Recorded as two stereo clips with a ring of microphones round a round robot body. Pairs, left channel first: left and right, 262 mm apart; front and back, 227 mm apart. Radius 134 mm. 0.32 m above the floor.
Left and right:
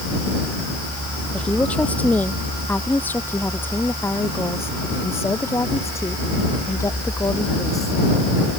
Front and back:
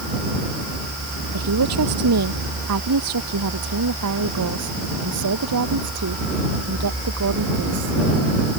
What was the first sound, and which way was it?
A woman speaking, 175° left.